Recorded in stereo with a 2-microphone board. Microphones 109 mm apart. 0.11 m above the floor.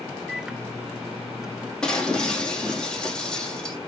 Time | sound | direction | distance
0.3 | a microwave | 5° right (ahead or behind) | 0.9 m
1.8 | breaking glass | 10° left (ahead or behind) | 3 m